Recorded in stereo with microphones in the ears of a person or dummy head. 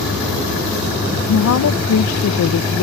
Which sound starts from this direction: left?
A woman speaking, at 1.3 s.